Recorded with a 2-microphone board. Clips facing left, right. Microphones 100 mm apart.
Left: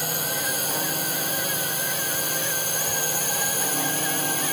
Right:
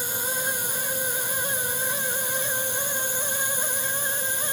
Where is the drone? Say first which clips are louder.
Left 1 dB; 65° left (ahead or behind).